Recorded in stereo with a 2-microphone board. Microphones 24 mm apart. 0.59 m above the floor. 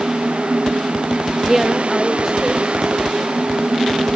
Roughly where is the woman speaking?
Centre.